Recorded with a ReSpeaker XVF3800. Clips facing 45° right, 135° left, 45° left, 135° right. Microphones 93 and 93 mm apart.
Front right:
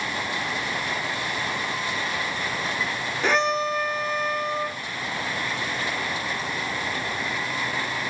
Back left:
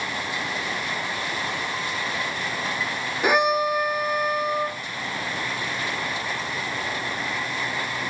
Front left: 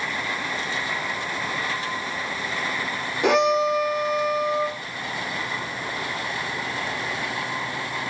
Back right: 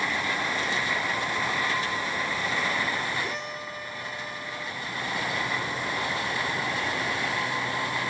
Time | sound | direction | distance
3.2 | a violin | 55° left | ?